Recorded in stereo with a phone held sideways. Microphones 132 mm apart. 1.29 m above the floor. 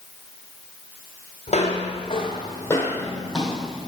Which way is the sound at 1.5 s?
55° left (ahead or behind).